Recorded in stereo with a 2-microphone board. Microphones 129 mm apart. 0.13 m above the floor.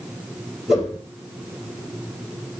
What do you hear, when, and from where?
0.7 s a whoosh: centre (ahead or behind), 2 m